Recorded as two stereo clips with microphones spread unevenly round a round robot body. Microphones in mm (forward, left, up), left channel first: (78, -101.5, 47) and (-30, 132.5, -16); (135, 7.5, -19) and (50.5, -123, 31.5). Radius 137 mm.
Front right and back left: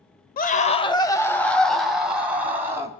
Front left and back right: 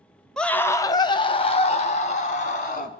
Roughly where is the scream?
Ahead.